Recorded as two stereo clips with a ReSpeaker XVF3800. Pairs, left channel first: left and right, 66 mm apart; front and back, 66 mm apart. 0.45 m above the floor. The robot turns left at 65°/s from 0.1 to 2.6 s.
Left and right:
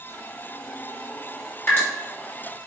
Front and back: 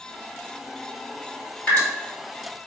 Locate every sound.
1.7 s dripping: 55° left, 1.6 m; by 1.8 s 45° left, 1.6 m